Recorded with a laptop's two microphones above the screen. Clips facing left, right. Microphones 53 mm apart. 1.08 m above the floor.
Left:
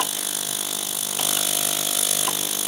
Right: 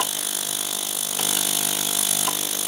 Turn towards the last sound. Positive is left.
No sound to turn to.